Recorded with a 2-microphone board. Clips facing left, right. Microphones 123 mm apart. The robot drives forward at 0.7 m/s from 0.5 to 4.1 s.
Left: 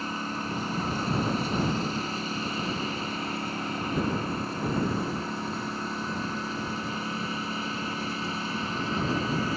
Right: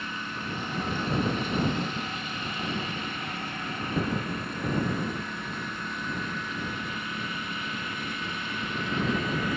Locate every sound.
0.0 s a lawn mower: 35° left (ahead or behind)